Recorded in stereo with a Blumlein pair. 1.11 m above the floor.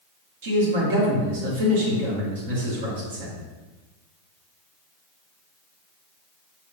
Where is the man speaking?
55° right, 1.8 m.